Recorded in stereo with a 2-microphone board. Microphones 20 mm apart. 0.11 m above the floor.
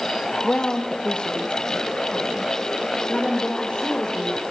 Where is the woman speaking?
50° left (ahead or behind), 2.5 m; by 4.4 s 65° left (ahead or behind), 5 m.